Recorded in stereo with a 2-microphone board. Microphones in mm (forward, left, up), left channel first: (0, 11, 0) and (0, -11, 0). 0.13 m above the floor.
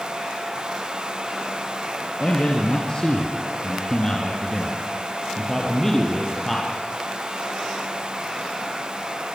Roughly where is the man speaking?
Left.